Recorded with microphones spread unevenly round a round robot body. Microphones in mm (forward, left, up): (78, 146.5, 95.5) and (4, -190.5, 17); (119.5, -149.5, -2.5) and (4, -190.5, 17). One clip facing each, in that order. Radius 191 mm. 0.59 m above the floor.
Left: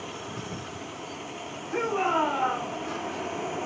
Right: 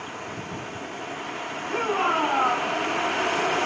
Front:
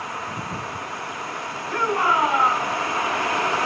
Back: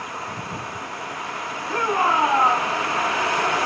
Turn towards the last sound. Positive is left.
turn(degrees=-105)